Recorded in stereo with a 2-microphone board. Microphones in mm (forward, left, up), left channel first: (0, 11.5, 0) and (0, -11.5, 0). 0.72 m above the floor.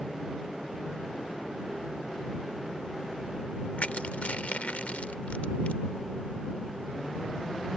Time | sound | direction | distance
3.8 | crushing | 80° left | ?